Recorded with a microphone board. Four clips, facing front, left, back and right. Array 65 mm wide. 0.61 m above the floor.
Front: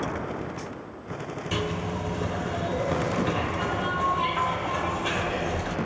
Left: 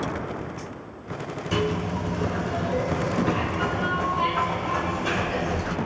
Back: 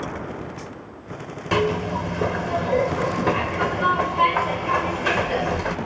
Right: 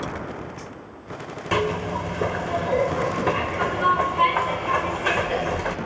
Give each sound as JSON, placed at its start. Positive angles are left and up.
{"t": 1.5, "sound": "a zipper", "azimuth_deg": -135, "distance_m": 2.0}